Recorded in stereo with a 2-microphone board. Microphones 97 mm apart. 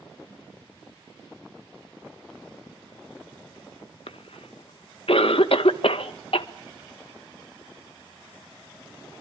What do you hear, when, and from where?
4.1 s a cough: 65° left (ahead or behind), 1.4 m